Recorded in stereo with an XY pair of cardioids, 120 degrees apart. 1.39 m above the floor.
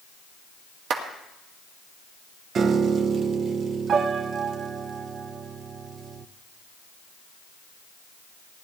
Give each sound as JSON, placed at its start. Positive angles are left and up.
{"t": 0.9, "sound": "a clap", "azimuth_deg": -65, "distance_m": 2.5}
{"t": 2.5, "sound": "a piano", "azimuth_deg": -50, "distance_m": 0.7}